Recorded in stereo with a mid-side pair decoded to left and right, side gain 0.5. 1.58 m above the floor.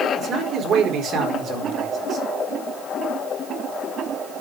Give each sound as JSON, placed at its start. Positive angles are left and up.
{"t": 0.1, "sound": "a man speaking", "azimuth_deg": -55, "distance_m": 4.5}